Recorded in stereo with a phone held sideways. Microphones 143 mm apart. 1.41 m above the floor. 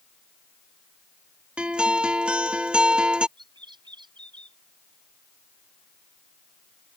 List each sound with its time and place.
1.6 s a guitar: 5° right (ahead or behind)
3.4 s a bird: 35° right (ahead or behind)